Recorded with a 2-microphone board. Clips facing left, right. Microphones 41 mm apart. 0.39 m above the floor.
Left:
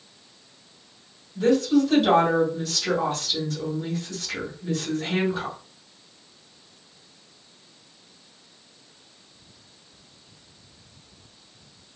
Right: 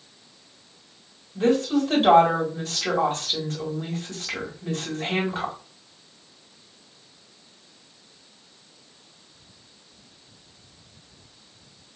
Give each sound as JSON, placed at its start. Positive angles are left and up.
{"t": 1.4, "sound": "a woman speaking", "side_deg": -45, "distance_m": 2.5}